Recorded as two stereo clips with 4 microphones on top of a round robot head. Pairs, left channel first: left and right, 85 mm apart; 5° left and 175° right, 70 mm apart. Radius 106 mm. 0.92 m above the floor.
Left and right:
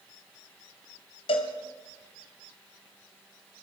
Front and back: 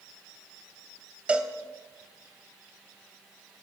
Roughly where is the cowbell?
Left.